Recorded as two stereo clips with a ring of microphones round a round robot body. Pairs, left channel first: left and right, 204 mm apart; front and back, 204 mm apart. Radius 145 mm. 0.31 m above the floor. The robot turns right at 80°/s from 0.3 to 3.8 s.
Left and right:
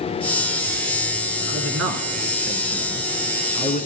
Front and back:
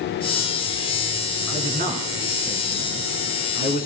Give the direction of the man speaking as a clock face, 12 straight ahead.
5 o'clock.